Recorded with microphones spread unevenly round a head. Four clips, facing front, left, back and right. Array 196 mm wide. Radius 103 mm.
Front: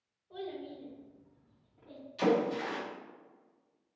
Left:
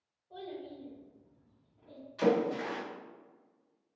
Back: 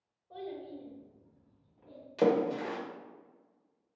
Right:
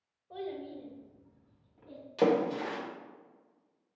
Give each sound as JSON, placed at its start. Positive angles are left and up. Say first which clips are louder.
{"t": 0.3, "sound": "a child speaking", "louder": "right 4 dB, even", "azimuth_deg": -85, "distance_m": 1.7}
{"t": 2.2, "sound": "a splash", "louder": "right 1 dB, back 1 dB", "azimuth_deg": -135, "distance_m": 1.2}